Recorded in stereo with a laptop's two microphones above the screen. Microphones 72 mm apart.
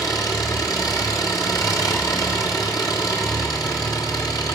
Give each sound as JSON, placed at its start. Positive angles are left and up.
{"t": 0.0, "sound": "an engine running", "side_deg": 60, "distance_m": 1.4}